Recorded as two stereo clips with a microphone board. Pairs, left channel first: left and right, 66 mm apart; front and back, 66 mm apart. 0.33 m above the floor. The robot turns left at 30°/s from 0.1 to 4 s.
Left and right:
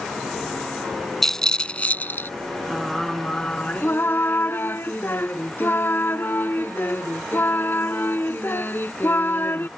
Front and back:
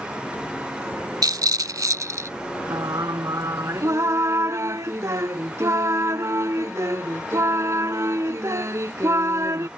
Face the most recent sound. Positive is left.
turn(degrees=145)